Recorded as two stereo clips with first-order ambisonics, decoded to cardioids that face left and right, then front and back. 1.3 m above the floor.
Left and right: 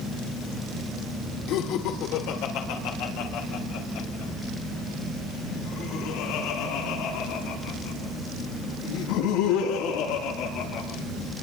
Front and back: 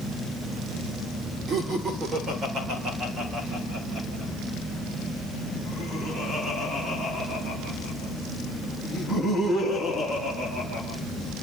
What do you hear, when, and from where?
1.5 s laughter: 120° left, 3 m; by 10.8 s 100° left, 13.5 m